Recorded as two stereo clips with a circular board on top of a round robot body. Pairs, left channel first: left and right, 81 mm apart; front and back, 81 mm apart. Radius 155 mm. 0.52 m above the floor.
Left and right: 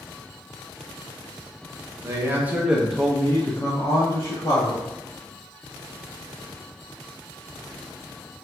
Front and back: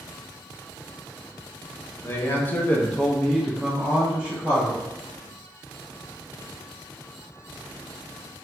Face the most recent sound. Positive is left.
turn(degrees=115)